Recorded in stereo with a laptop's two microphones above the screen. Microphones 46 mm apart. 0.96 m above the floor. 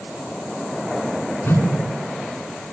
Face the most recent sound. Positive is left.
turn(degrees=50)  # may be behind; listen again after turning